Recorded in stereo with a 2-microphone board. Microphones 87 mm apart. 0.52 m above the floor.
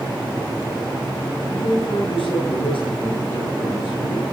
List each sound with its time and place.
1.5 s a man speaking: 75° left (ahead or behind), 9 m